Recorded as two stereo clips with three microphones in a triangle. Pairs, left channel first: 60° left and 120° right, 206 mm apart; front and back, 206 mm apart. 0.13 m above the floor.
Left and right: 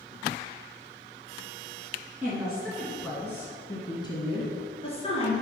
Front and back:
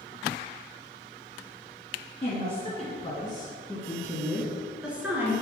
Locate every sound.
2.2 s a woman speaking: 40° right, 2 m; by 5.3 s 105° left, 2 m